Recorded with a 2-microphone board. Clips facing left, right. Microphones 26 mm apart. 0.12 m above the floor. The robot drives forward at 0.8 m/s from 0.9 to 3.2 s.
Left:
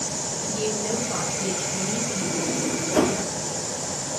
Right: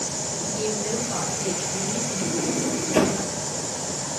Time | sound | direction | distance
0.4 | a woman speaking | 5° right (ahead or behind) | 2 m
2.2 | a sliding door | 55° right (ahead or behind) | 0.8 m